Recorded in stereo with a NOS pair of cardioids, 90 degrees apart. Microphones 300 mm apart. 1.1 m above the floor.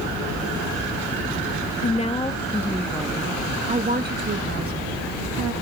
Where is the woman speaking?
25° left, 1.6 m; by 5.5 s 60° right, 1.8 m.